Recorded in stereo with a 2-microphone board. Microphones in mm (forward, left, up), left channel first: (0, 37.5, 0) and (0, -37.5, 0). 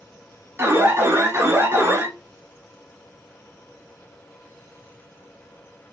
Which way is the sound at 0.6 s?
35° right (ahead or behind).